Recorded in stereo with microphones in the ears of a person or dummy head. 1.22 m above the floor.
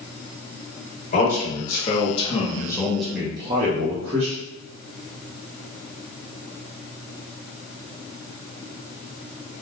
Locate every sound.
1.1 s a man speaking: 45° left (ahead or behind), 1.3 m; by 4.3 s 60° right (ahead or behind), 0.8 m